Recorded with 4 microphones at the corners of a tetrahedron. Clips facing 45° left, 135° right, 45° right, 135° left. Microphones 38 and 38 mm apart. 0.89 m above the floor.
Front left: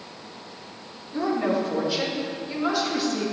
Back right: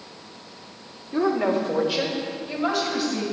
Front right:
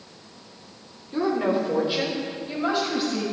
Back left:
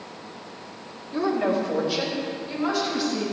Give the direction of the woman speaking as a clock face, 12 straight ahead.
4 o'clock.